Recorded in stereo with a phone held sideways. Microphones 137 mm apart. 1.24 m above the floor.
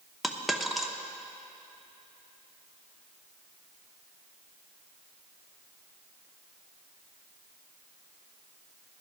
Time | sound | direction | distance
0.2 | a dropped coin | centre (ahead or behind) | 0.8 m